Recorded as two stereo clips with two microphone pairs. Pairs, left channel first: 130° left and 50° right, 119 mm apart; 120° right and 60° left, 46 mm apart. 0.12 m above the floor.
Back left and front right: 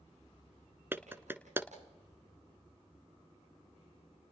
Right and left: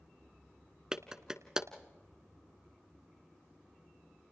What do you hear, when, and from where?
0.9 s a clap: straight ahead, 1.1 m